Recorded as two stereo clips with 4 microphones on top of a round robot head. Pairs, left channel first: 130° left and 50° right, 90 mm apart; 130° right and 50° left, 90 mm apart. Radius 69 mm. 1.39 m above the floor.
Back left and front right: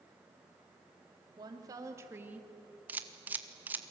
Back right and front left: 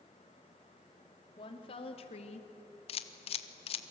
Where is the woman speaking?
95° right, 3 m; by 2.5 s 130° right, 1.9 m.